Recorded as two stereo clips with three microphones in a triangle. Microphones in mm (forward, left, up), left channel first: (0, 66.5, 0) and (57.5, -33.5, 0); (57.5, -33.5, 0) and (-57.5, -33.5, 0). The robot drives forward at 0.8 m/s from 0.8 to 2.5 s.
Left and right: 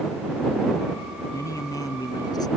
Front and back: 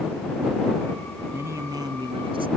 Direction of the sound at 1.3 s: 135° left.